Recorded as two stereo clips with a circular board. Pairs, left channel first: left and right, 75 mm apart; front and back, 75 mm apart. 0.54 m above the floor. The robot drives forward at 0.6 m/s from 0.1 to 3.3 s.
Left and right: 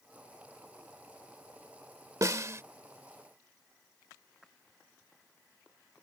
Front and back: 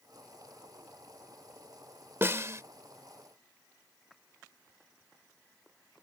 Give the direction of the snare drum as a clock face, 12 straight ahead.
4 o'clock.